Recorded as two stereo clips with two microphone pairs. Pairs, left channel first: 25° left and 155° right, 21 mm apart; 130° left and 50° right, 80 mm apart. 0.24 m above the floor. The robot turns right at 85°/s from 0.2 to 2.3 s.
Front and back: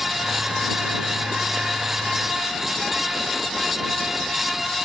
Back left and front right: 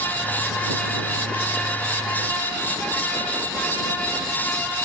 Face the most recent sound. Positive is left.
No sound to turn to.